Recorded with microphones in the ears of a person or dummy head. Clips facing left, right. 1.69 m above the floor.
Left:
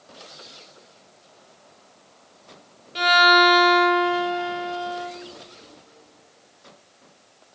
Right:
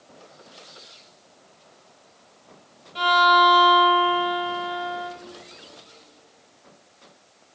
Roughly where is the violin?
Left.